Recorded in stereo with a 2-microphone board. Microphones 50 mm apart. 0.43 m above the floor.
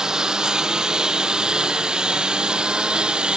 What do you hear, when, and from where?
0.0 s a lawn mower: 15° right (ahead or behind); by 3.4 s 20° right (ahead or behind)